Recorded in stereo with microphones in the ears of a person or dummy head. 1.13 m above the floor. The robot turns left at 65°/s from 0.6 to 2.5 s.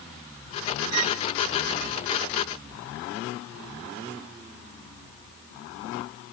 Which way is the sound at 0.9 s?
85° right.